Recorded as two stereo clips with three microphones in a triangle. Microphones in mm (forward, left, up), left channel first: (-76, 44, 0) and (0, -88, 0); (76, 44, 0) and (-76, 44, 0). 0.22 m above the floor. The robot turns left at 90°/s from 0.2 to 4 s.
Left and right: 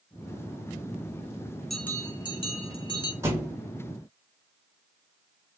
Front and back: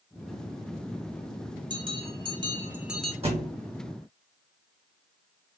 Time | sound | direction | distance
1.7 | a bell | 155° right | 0.7 m
3.2 | a thud | 130° right | 1.1 m